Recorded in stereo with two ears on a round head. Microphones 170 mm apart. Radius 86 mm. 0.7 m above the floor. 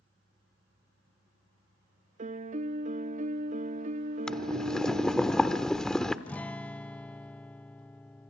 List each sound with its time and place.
2.2 s a piano: 35° right (ahead or behind), 0.6 m
4.3 s boiling: 5° left (ahead or behind), 0.9 m
6.3 s a guitar: 5° left (ahead or behind), 0.6 m